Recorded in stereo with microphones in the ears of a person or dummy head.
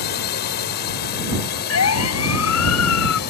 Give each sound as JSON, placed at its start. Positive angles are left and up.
{"t": 0.0, "sound": "a drone", "side_deg": 55}
{"t": 1.7, "sound": "a siren", "side_deg": 85}